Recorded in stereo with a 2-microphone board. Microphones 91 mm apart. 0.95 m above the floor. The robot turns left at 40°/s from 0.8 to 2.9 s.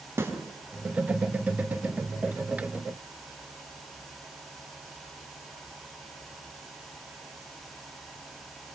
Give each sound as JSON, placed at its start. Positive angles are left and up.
{"t": 0.2, "sound": "a snare drum", "side_deg": -30, "distance_m": 4.5}